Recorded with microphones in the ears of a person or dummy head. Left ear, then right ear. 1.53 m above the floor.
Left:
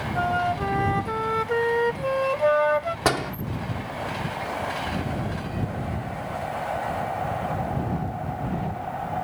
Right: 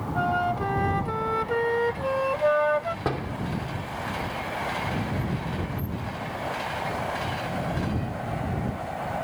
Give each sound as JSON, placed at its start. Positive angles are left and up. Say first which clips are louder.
{"t": 0.1, "sound": "a flute", "louder": "left 1 dB", "side_deg": 10}
{"t": 3.0, "sound": "a door slam", "louder": "left 6 dB", "side_deg": 70}